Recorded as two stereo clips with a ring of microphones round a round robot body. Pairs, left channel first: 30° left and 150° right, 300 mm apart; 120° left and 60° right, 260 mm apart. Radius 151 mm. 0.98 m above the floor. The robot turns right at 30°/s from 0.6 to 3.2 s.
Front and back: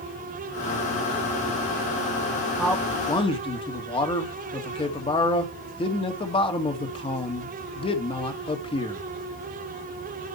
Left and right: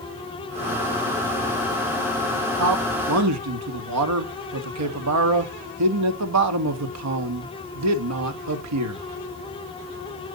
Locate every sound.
2.6 s a man speaking: 60° right, 1.8 m; by 9.0 s 45° right, 1.8 m